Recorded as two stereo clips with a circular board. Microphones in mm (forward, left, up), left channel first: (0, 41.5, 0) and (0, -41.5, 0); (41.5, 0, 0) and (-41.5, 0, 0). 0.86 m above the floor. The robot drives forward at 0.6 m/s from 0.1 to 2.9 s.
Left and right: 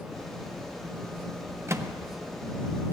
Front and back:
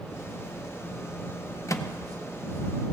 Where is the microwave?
40° right, 0.6 m; by 1.9 s 55° right, 0.5 m.